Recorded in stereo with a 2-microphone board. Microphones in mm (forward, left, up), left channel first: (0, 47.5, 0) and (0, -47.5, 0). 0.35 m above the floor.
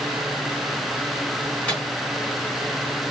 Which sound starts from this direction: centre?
A microwave, at 1.7 s.